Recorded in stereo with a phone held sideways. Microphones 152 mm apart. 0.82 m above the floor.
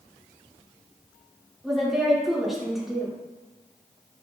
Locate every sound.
1.6 s a woman speaking: centre (ahead or behind), 2.5 m